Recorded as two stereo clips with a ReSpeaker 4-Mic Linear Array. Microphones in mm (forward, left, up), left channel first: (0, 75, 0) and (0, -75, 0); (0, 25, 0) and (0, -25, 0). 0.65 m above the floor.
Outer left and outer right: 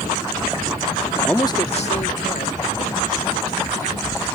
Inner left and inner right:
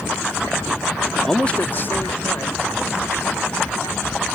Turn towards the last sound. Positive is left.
turn(degrees=70)  # may be behind; listen again after turning